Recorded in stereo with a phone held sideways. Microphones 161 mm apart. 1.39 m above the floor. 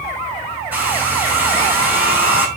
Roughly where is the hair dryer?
Centre.